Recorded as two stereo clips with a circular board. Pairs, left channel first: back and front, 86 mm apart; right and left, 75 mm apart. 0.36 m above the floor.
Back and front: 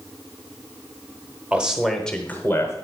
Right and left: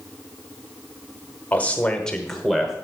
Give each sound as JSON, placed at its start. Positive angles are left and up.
{"t": 1.5, "sound": "a man speaking", "azimuth_deg": -55, "distance_m": 1.1}